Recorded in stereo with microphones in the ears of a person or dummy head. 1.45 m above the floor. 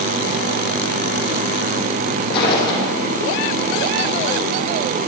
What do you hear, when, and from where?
2.3 s footsteps: 30° left (ahead or behind), 3.5 m